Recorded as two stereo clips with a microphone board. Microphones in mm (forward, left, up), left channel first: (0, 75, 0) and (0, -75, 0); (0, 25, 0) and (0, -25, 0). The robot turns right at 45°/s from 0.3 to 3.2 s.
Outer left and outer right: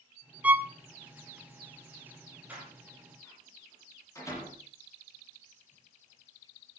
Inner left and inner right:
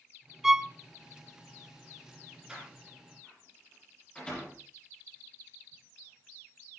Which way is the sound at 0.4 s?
10° right (ahead or behind).